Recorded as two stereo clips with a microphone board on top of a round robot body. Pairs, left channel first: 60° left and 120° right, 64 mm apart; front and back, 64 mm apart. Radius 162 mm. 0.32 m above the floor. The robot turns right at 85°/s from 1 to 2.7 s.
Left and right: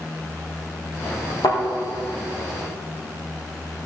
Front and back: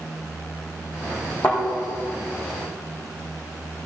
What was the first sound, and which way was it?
A thud, 65° left.